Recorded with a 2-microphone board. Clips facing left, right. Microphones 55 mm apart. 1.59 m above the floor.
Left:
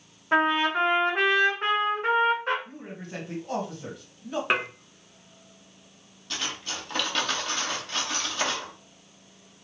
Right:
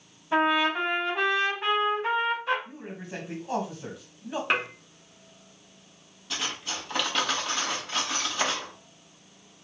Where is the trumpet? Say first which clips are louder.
Left 1 dB; 45° left (ahead or behind), 2 m.